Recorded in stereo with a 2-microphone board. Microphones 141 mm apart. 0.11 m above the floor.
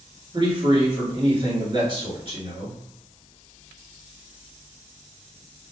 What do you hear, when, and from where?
0.3 s a man speaking: 35° right (ahead or behind), 1.6 m